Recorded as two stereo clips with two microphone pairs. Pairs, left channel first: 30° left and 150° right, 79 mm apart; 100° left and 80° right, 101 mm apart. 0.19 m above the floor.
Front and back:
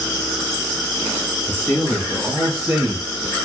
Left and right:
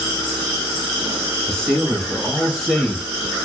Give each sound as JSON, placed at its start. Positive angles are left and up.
{"t": 1.5, "sound": "a man speaking", "azimuth_deg": 30, "distance_m": 1.3}